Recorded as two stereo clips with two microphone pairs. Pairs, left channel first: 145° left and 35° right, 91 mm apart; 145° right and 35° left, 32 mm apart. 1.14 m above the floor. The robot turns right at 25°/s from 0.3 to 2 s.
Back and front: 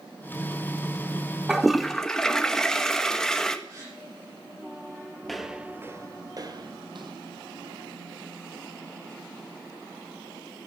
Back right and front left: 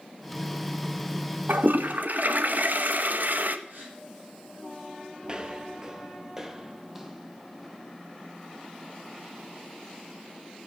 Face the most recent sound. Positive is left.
turn(degrees=-50)